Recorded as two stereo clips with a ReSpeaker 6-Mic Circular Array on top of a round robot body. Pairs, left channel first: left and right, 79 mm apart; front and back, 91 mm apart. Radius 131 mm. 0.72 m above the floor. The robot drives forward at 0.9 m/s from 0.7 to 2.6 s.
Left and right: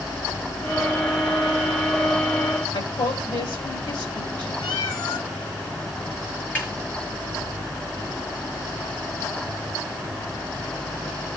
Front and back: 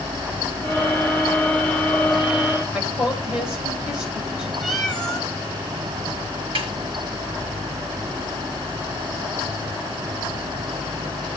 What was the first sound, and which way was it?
A woman speaking, 100° left.